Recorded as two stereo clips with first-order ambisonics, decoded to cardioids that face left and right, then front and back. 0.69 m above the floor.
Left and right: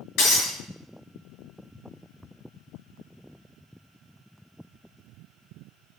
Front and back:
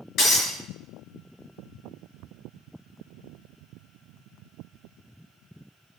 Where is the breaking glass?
50° left, 5 m.